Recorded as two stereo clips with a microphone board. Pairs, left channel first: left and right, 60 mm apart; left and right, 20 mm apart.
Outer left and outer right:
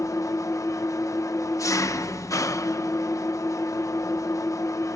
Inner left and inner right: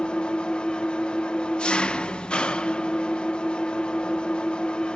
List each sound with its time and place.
0.0 s an engine running: 60° left (ahead or behind), 0.7 m